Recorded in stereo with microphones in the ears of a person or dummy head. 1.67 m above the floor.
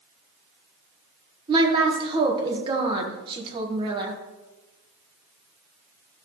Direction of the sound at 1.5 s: 25° right (ahead or behind).